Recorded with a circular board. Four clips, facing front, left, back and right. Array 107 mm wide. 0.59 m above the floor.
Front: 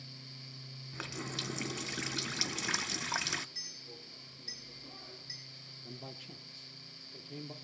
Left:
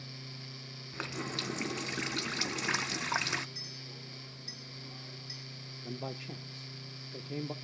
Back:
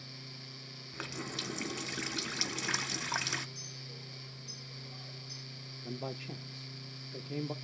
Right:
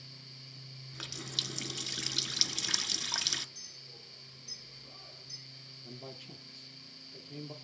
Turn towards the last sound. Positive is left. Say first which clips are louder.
# left 7 dB, back 8 dB
turn(degrees=130)